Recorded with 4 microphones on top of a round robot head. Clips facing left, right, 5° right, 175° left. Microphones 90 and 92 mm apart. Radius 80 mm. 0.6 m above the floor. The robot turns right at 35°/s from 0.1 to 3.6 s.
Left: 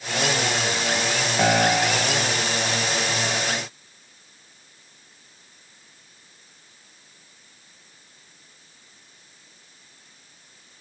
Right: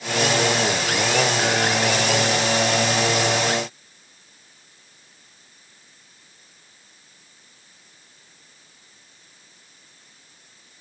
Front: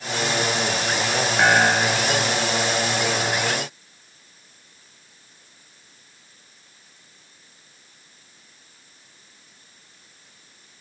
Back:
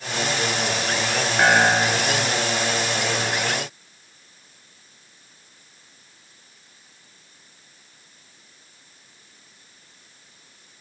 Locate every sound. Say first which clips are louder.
1.4 s a piano: left 2 dB, back 1 dB; 80° left; by 2.3 s 115° left